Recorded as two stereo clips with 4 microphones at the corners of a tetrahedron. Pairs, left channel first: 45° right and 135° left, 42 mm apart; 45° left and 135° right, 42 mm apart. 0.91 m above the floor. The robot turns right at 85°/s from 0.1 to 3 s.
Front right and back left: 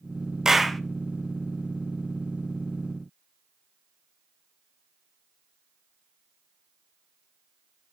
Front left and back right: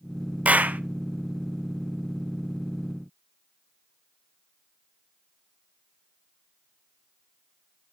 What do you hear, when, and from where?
0.5 s a clap: 155° right, 0.6 m; by 0.8 s 125° right, 0.6 m